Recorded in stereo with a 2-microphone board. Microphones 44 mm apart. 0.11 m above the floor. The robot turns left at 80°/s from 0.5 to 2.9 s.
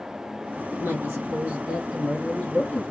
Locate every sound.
0.7 s a woman speaking: 65° right, 2.5 m; by 2.9 s 115° left, 2.5 m